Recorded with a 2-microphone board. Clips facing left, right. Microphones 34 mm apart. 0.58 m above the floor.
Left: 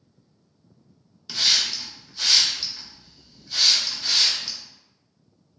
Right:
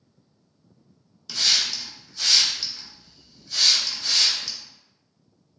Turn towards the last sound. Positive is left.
turn(degrees=15)  # may be behind; listen again after turning